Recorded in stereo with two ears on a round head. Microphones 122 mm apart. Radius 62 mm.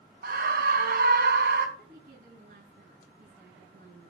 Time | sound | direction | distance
0.2 | a scream | 80° right | 4.5 m
1.8 | a woman speaking | 65° right (ahead or behind) | 7.5 m